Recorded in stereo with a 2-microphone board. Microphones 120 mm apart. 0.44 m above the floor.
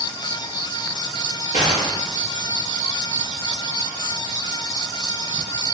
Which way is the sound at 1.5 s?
85° left.